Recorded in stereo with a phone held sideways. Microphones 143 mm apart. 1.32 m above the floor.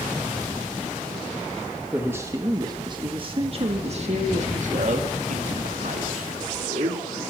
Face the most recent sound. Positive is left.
turn(degrees=-75)  # may be behind; listen again after turning